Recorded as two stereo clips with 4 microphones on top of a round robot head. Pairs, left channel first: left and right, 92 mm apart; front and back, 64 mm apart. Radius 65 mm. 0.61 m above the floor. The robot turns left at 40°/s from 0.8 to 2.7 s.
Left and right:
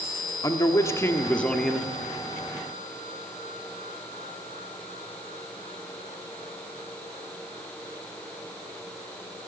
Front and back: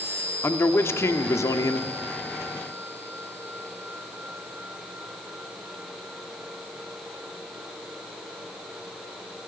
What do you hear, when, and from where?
0.4 s a man speaking: 40° left, 1.5 m; by 1.9 s 5° right, 1.5 m